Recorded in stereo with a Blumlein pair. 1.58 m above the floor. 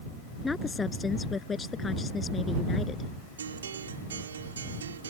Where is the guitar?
70° right.